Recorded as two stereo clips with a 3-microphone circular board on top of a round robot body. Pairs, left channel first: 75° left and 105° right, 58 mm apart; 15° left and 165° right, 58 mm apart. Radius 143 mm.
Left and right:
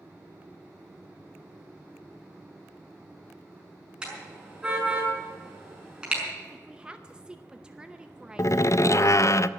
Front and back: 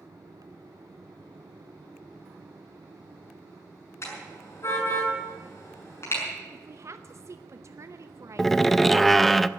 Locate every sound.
4.0 s a car horn: 25° right, 6 m
6.5 s a woman speaking: 175° right, 0.9 m
8.4 s a door slam: 105° left, 0.5 m